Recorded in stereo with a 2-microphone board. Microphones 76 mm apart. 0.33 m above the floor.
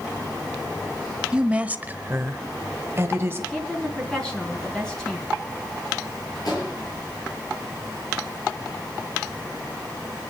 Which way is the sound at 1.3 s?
10° right (ahead or behind).